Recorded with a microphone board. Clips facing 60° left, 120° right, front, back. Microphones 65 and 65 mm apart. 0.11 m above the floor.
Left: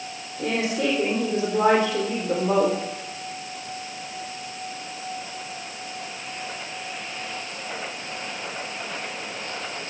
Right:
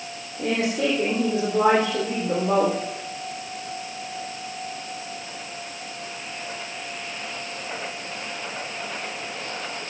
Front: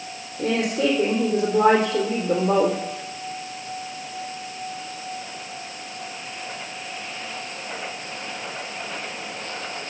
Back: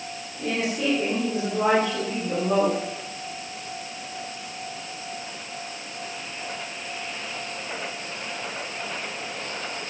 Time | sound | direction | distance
0.4 | a woman speaking | 40° right | 3.5 m